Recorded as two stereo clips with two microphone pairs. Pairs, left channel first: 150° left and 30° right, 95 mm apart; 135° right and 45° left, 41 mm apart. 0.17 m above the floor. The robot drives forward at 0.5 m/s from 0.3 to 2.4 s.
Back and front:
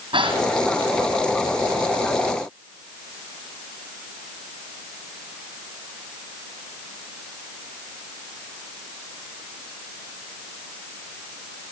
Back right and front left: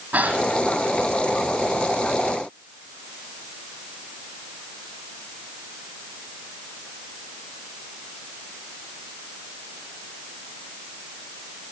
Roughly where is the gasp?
Ahead.